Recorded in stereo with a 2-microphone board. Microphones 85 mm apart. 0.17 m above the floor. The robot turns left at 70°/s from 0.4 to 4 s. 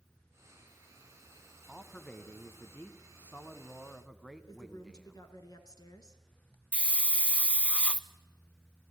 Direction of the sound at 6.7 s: 15° left (ahead or behind).